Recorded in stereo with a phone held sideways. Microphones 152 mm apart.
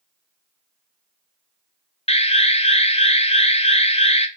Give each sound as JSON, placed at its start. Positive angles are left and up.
{"t": 2.1, "sound": "an alarm", "side_deg": 40, "distance_m": 0.8}